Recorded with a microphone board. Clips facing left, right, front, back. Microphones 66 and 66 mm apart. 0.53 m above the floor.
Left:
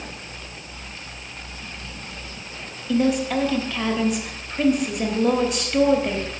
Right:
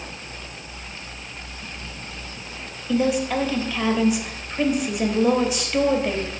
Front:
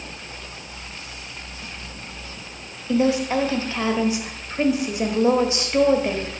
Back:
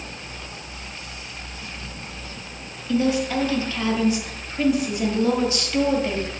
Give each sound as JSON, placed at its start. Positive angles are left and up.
{"t": 2.9, "sound": "a woman speaking", "azimuth_deg": -5, "distance_m": 1.1}